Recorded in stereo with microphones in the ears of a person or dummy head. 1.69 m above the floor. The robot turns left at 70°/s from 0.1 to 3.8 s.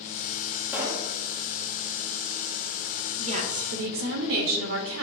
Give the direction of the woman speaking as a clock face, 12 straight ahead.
1 o'clock.